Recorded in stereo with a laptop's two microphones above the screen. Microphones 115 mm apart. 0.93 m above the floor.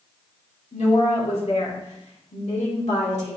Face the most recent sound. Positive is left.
turn(degrees=80)